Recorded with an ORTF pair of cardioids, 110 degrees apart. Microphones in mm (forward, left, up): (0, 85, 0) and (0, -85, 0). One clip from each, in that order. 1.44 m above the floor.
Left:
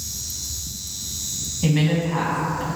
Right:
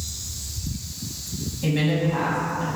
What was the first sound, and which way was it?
A woman speaking, 20° left.